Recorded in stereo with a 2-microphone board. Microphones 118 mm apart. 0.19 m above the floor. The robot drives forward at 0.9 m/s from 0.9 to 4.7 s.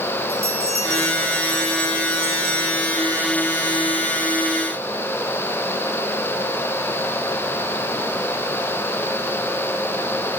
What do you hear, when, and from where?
0.3 s a bell: 5° left (ahead or behind), 4 m